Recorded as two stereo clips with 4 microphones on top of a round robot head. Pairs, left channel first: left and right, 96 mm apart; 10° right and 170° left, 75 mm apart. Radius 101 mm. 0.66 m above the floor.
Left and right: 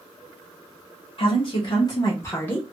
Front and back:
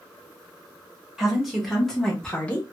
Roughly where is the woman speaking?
Left.